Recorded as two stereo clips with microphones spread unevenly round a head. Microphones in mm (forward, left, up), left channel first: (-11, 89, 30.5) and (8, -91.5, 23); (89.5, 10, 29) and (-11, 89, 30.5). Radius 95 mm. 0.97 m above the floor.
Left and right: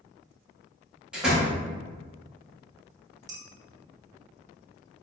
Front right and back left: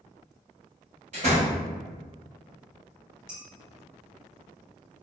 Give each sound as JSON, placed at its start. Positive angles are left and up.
{"t": 1.1, "sound": "a door slam", "azimuth_deg": -170, "distance_m": 1.0}
{"t": 3.3, "sound": "dishes clattering", "azimuth_deg": -155, "distance_m": 0.8}